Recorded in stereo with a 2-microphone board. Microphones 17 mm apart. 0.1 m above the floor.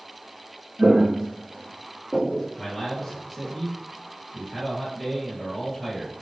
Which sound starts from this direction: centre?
A man speaking, at 2.6 s.